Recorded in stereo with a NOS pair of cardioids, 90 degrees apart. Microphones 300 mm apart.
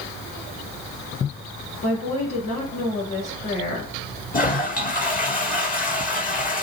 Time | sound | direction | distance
1.8 | a woman speaking | 60° left | 4 m
4.3 | a toilet flushing | 30° left | 2 m